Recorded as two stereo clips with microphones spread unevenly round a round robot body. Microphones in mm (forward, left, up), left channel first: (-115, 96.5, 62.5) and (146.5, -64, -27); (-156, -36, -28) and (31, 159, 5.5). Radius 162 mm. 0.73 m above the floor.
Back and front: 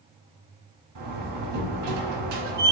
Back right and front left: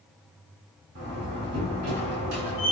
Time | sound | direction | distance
0.9 | a door slam | 5° right | 4 m